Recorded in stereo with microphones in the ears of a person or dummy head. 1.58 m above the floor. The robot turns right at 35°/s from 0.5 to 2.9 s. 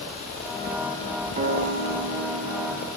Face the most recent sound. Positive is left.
turn(degrees=-95)